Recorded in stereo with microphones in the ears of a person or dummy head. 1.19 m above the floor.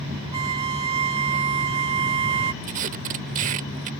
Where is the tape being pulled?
45° right (ahead or behind).